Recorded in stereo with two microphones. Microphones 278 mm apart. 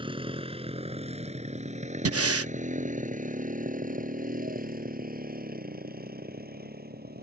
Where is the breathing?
55° right (ahead or behind).